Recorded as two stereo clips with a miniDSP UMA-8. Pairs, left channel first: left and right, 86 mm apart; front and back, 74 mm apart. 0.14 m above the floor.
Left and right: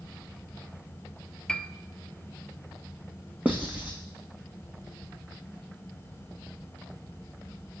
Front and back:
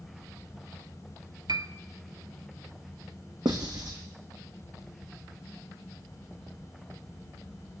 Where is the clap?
I don't hear a clap.